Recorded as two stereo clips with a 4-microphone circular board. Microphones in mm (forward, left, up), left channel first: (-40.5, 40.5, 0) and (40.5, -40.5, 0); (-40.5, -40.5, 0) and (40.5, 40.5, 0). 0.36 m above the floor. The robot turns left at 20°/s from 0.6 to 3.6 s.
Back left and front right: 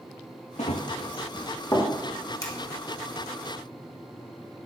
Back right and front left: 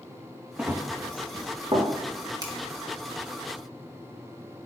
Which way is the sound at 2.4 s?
85° left.